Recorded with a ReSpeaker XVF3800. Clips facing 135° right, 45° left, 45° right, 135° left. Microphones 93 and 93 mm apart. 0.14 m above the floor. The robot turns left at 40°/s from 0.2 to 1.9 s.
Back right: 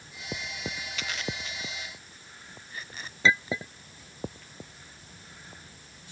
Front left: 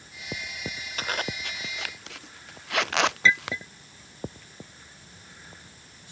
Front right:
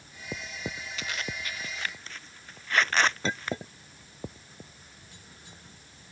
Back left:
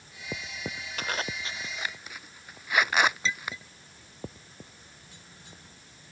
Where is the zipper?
90° left; by 3.6 s 55° left.